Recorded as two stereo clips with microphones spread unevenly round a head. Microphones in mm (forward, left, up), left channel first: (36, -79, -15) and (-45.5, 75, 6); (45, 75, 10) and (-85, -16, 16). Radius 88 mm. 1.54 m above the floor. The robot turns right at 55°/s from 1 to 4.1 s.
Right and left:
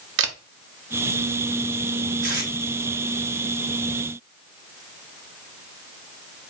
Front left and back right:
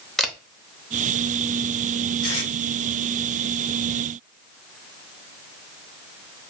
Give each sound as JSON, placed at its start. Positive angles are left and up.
{"t": 0.2, "sound": "a camera shutter", "azimuth_deg": 125, "distance_m": 0.6}
{"t": 2.2, "sound": "tape being pulled", "azimuth_deg": 75, "distance_m": 1.4}